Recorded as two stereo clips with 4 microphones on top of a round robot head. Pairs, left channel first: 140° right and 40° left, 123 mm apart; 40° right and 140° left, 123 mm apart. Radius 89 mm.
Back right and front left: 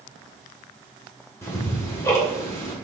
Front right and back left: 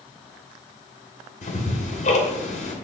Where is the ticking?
70° right, 2.5 m.